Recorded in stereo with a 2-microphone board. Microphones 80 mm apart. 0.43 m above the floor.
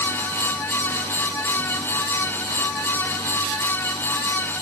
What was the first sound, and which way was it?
Only background noise.